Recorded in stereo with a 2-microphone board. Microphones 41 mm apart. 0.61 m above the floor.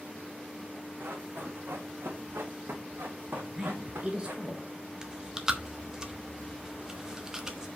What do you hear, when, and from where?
1.0 s running footsteps: 65° right (ahead or behind), 2.5 m; by 4.3 s 70° right (ahead or behind), 2.5 m
3.3 s a woman speaking: 25° right (ahead or behind), 2.5 m
5.0 s chewing: 15° right (ahead or behind), 1.1 m